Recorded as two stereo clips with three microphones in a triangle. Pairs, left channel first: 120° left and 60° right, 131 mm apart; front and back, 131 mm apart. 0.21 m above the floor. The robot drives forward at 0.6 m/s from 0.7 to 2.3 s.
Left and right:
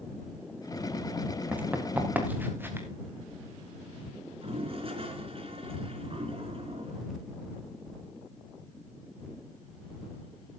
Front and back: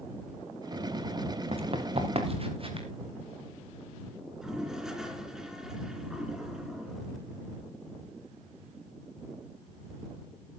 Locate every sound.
1.5 s running footsteps: 140° right, 2.5 m; by 2.9 s 130° right, 3.5 m
4.4 s a toilet flushing: 95° right, 3 m